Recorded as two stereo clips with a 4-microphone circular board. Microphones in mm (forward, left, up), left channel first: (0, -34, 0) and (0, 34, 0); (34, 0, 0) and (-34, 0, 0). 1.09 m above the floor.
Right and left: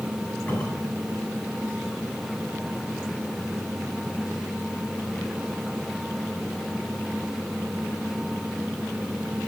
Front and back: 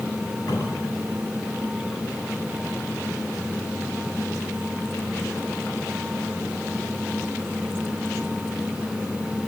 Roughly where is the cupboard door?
Ahead right.